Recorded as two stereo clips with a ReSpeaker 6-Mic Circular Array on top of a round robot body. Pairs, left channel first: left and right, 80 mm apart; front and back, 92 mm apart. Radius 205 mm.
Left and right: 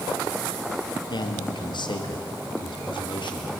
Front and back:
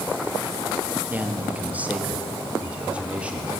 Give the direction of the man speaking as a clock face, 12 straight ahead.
8 o'clock.